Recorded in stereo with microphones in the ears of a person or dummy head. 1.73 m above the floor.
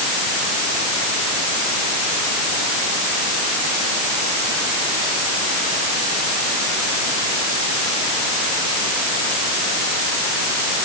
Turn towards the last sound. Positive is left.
No sound to turn to.